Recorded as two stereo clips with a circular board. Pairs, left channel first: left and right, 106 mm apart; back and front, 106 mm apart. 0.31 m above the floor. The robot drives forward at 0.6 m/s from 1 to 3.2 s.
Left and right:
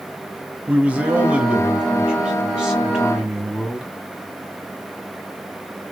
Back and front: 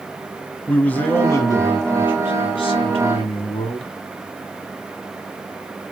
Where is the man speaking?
145° right, 0.9 m; by 3.9 s 175° right, 1.8 m.